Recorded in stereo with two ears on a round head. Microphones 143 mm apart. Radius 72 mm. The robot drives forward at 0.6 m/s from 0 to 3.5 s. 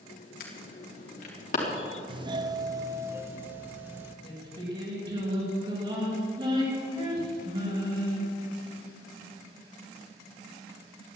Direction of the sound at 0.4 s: 60° left (ahead or behind).